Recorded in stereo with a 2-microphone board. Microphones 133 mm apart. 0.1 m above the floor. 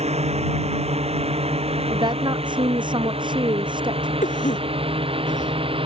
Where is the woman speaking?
35° right (ahead or behind).